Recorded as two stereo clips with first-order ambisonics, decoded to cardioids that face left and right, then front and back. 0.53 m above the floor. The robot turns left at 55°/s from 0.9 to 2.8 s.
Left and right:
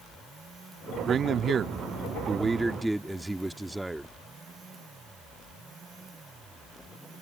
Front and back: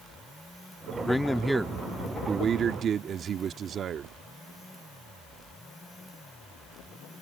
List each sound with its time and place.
1.1 s a man speaking: 70° right; by 4.1 s 165° right